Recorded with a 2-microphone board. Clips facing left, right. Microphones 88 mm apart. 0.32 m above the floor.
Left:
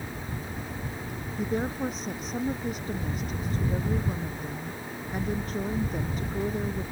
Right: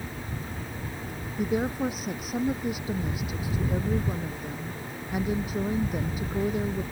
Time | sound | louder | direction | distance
1.4 | a woman speaking | right 2 dB | 10° right (ahead or behind) | ?